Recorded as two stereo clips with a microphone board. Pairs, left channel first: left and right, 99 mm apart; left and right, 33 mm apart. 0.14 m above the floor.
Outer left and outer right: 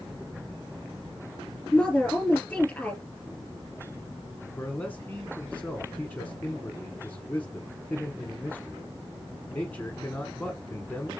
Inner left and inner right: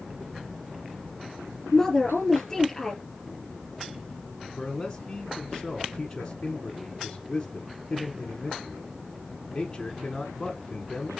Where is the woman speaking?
10° left (ahead or behind), 3 m.